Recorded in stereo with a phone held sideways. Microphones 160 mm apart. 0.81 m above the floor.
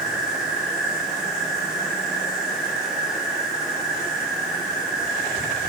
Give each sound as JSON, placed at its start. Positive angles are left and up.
{"t": 0.0, "sound": "an insect", "side_deg": -5, "distance_m": 7.5}